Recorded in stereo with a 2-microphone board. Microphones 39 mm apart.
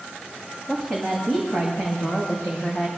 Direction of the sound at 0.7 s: 10° left (ahead or behind).